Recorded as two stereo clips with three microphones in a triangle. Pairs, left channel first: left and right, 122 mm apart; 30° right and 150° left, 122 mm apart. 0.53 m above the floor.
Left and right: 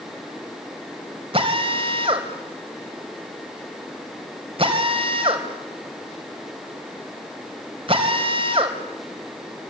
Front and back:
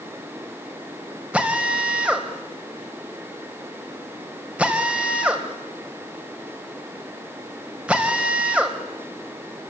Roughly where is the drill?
Behind right.